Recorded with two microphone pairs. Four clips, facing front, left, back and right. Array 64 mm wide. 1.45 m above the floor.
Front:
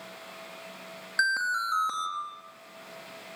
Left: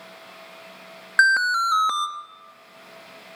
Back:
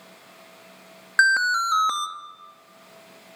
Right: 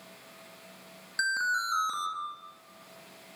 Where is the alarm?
120° left, 2.5 m.